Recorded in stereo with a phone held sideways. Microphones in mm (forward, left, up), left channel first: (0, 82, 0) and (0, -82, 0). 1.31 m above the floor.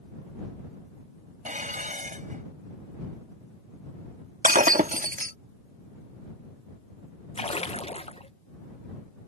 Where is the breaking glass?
55° right (ahead or behind).